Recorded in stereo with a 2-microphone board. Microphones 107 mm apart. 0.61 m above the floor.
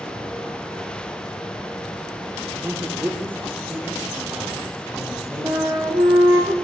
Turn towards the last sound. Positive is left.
turn(degrees=-35)  # may be behind; listen again after turning